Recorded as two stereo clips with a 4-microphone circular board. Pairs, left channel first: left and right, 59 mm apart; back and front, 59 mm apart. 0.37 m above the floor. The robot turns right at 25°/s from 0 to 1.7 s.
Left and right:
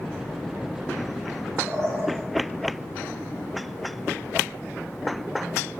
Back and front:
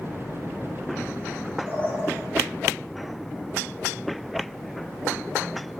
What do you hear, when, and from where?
1.7 s a bird: 55° right, 5 m